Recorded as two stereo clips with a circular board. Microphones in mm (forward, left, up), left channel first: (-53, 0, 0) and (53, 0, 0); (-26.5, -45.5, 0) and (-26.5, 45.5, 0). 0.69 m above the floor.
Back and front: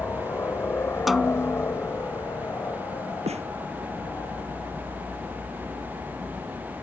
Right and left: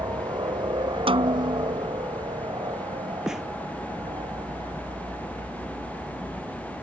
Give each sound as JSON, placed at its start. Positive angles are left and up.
{"t": 0.0, "sound": "a helicopter", "azimuth_deg": 115}
{"t": 1.1, "sound": "a snare drum", "azimuth_deg": 90}
{"t": 3.3, "sound": "a snare drum", "azimuth_deg": 5}